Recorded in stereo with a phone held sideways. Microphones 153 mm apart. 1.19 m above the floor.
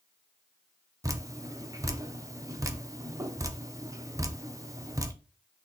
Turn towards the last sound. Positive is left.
turn(degrees=-20)  # may be behind; listen again after turning